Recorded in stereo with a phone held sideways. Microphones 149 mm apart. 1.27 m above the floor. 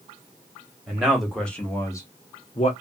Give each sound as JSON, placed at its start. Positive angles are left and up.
{"t": 0.9, "sound": "a man speaking", "side_deg": -5, "distance_m": 1.6}